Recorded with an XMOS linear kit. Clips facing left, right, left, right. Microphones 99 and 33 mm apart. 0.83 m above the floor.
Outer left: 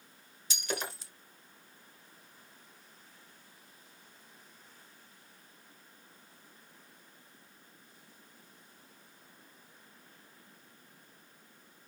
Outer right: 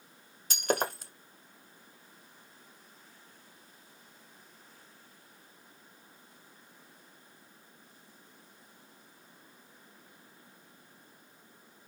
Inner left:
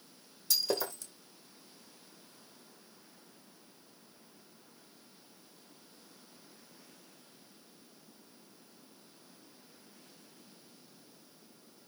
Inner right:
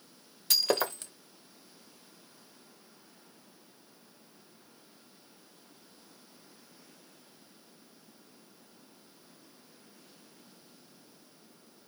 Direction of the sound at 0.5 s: 50° right (ahead or behind).